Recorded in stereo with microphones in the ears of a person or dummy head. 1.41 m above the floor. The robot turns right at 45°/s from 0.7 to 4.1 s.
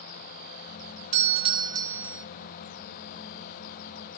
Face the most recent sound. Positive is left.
turn(degrees=85)